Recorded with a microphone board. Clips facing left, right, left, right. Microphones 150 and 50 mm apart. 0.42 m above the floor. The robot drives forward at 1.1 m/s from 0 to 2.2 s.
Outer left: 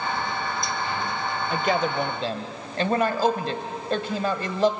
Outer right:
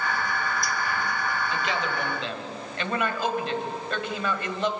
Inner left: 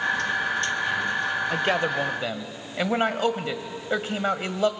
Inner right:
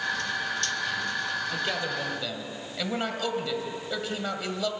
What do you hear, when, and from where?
1.5 s a man speaking: 50° left (ahead or behind), 1.3 m; by 4.7 s 35° left (ahead or behind), 1.7 m